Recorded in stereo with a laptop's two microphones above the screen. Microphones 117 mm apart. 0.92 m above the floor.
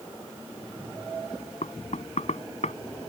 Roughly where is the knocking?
Left.